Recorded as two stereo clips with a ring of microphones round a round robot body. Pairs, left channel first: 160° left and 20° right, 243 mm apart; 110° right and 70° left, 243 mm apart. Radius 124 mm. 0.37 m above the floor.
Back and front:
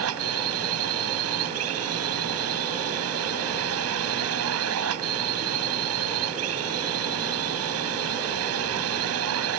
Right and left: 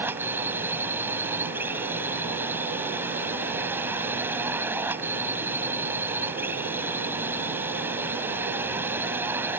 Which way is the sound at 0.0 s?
15° right.